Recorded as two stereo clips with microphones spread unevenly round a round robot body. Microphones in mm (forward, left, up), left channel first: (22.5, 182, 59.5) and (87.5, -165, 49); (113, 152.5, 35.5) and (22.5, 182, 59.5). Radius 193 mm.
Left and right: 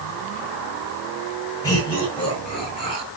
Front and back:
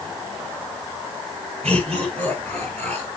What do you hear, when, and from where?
1.6 s laughter: straight behind, 7 m; by 3.1 s 175° left, 5 m